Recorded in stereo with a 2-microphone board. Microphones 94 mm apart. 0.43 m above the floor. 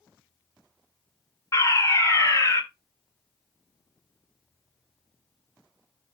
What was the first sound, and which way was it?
A fire alarm, 30° left (ahead or behind).